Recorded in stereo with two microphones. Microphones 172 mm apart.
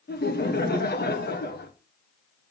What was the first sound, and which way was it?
Laughter, 70° left (ahead or behind).